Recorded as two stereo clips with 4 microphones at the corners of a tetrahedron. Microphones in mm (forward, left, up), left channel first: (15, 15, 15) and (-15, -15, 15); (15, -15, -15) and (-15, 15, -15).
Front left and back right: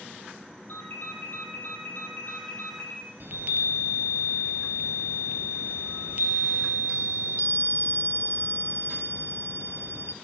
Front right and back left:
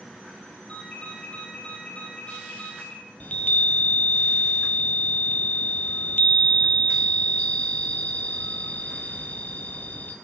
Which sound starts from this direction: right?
A chime, at 3.2 s.